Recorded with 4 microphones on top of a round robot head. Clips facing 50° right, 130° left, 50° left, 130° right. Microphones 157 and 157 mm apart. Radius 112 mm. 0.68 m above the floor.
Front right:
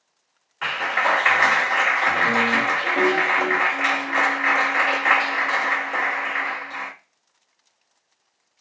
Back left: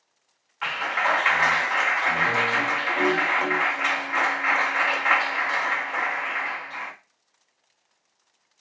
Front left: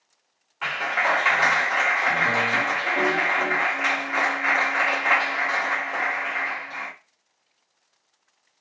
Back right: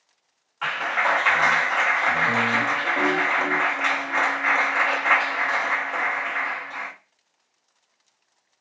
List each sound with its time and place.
0.6 s a clap: 25° right, 1.2 m